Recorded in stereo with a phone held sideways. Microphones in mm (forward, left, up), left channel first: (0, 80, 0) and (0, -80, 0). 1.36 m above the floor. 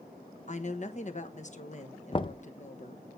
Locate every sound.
0.5 s a woman speaking: 45° left (ahead or behind), 1.2 m
2.1 s knocking: 30° left (ahead or behind), 0.7 m